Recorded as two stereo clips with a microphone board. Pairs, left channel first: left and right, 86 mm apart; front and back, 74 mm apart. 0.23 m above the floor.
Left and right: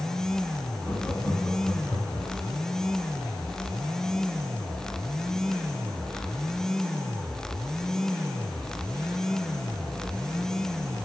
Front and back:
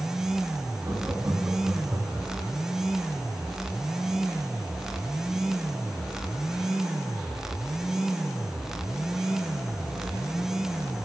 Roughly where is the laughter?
Behind.